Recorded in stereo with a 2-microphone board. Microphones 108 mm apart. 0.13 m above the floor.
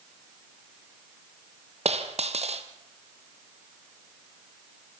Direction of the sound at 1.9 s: 80° right.